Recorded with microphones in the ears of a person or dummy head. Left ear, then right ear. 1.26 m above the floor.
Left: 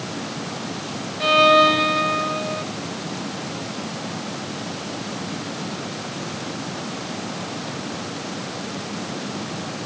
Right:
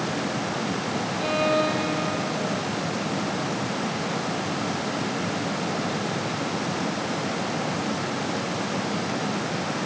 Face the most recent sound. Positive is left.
turn(degrees=60)  # may be behind; listen again after turning